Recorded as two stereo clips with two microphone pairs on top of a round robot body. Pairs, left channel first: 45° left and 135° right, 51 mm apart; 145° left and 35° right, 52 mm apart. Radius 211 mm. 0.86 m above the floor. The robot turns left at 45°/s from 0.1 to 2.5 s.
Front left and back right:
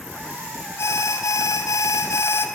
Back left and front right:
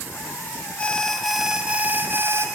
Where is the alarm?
80° left, 0.6 m; by 2.5 s straight ahead, 0.6 m.